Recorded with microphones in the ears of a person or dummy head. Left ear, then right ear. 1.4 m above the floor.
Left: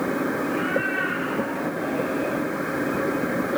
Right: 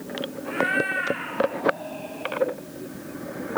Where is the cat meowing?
55° right (ahead or behind), 2.5 m; by 2.4 s 40° right (ahead or behind), 3 m.